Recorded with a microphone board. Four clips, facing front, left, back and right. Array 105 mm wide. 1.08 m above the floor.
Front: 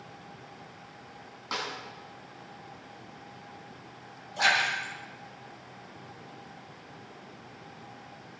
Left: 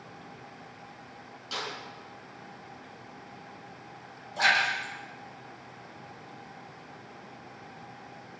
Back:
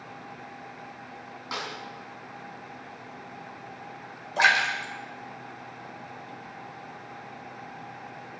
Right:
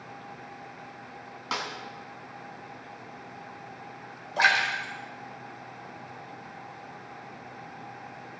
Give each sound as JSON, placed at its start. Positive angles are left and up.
{"t": 1.5, "sound": "a snare drum", "azimuth_deg": -90, "distance_m": 3.5}
{"t": 4.4, "sound": "a splash", "azimuth_deg": -140, "distance_m": 4.5}